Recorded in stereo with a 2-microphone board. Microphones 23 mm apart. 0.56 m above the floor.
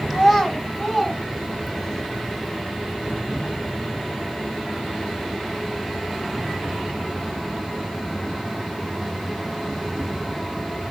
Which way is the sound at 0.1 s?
5° right (ahead or behind).